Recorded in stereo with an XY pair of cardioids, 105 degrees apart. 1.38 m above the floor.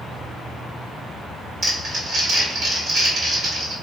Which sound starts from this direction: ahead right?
Crumpling, at 1.6 s.